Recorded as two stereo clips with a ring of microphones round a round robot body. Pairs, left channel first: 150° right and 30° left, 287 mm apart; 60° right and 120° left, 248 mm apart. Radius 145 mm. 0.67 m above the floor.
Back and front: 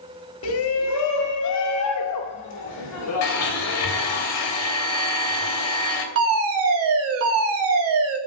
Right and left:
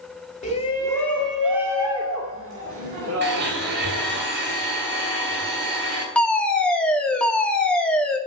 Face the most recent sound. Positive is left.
turn(degrees=25)